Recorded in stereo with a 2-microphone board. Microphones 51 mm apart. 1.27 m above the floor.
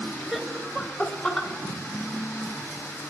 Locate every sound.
0.3 s laughter: 10° right (ahead or behind), 1.7 m; by 1.5 s 5° left (ahead or behind), 3.5 m